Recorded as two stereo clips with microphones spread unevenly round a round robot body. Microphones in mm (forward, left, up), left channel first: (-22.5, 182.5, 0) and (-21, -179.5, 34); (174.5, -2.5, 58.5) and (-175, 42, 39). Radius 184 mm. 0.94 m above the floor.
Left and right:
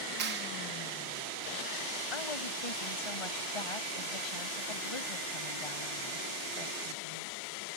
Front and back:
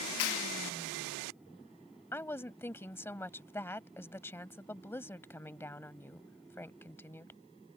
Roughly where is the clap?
Ahead right.